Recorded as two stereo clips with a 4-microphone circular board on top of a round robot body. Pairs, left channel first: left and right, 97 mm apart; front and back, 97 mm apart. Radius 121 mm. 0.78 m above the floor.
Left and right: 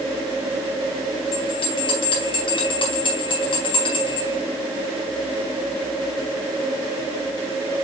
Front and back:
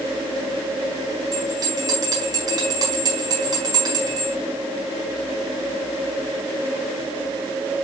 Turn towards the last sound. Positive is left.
turn(degrees=130)